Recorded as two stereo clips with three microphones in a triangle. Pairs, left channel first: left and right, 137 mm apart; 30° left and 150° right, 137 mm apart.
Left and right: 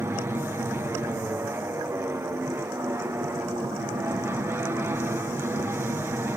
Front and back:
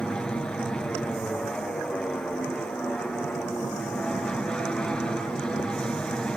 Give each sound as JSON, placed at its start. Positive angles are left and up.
{"t": 0.0, "sound": "an aircraft", "azimuth_deg": -45}